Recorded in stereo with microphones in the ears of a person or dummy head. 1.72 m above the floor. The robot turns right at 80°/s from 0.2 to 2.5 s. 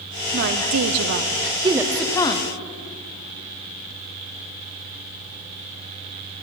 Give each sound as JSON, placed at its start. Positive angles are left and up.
{"t": 0.3, "sound": "a woman speaking", "azimuth_deg": -130, "distance_m": 0.6}